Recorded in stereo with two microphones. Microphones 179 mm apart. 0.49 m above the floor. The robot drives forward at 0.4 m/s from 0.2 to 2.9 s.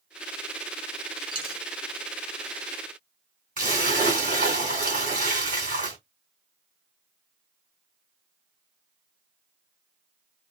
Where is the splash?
50° right (ahead or behind), 1.8 m.